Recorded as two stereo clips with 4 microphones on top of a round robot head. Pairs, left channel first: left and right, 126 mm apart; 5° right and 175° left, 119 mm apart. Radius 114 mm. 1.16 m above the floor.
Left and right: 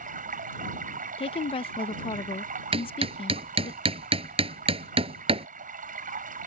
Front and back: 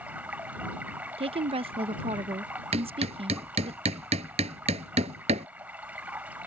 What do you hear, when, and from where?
0.0 s running water: 100° right
1.2 s a woman speaking: 135° left
2.7 s hammering: 135° right